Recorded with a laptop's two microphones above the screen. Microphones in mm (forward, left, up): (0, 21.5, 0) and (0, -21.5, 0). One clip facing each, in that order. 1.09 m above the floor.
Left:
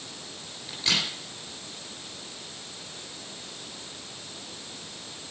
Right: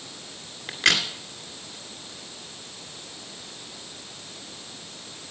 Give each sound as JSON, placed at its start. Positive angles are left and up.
{"t": 0.7, "sound": "a crack", "side_deg": -85, "distance_m": 2.5}